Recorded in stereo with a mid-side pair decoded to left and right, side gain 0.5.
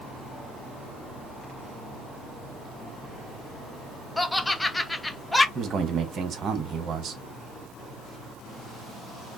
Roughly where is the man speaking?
Ahead right.